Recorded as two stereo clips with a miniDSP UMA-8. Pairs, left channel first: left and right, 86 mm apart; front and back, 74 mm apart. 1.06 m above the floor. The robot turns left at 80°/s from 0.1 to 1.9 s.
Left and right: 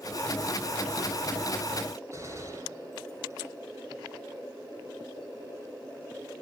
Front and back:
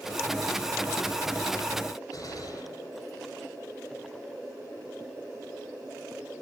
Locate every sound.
2.1 s a gunshot: 35° right, 6 m